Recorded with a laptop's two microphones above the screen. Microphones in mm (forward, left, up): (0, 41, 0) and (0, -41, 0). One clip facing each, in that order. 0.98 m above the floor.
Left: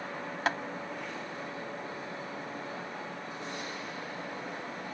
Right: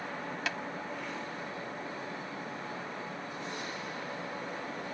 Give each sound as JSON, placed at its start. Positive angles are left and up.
{"t": 0.5, "sound": "tapping", "side_deg": 40}